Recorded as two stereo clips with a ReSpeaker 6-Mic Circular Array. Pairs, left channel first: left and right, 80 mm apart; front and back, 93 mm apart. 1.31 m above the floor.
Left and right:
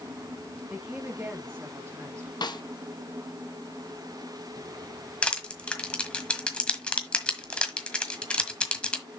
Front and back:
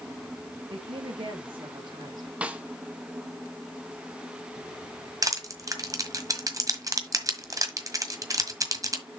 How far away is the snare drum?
About 0.9 m.